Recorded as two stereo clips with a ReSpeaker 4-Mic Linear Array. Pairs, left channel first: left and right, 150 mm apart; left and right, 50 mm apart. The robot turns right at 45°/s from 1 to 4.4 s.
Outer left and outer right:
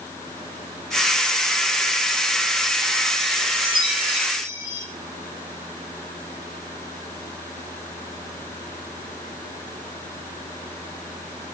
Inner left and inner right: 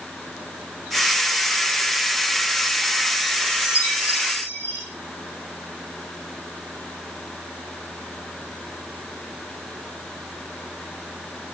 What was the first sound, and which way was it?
A chime, 120° left.